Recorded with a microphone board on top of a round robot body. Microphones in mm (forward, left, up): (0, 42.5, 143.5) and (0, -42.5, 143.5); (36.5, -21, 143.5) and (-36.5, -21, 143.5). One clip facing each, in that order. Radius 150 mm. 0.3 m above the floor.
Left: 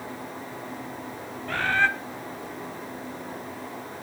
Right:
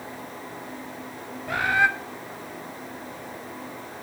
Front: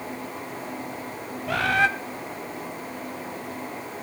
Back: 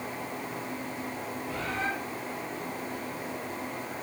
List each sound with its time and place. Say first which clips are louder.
1.5 s a bird: right 2 dB, front 12 dB; 15° right, 1.2 m